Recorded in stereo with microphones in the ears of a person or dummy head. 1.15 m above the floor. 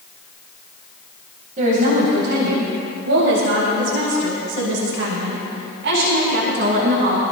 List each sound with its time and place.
1.6 s a woman speaking: 40° right (ahead or behind), 3.5 m; by 7.2 s 50° right (ahead or behind), 5.5 m